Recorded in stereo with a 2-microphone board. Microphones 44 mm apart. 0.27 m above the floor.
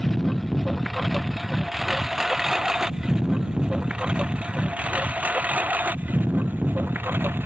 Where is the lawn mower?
5° left (ahead or behind); by 7.5 s 50° right (ahead or behind).